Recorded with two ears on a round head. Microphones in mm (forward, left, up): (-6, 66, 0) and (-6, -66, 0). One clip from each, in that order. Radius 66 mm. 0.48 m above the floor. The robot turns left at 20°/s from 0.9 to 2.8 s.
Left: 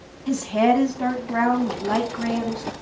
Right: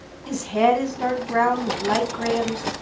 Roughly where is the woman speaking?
Ahead.